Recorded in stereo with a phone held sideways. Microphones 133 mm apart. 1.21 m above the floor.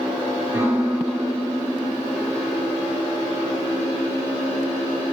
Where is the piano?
15° right (ahead or behind), 2.5 m.